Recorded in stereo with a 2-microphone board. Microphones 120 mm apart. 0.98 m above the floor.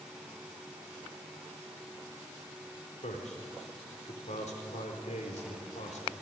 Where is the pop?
I don't hear a pop.